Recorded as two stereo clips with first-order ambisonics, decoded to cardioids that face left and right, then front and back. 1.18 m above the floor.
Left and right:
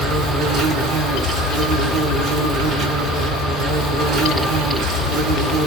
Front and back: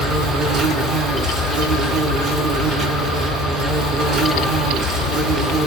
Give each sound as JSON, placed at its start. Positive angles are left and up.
{"t": 0.0, "sound": "an insect", "azimuth_deg": -130, "distance_m": 1.5}